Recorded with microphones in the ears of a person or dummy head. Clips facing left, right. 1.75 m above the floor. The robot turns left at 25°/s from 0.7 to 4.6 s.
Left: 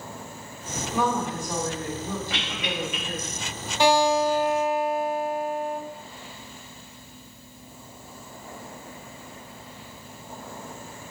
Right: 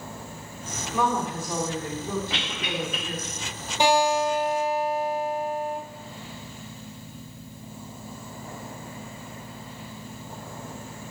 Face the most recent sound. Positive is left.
turn(degrees=-35)  # may be behind; listen again after turning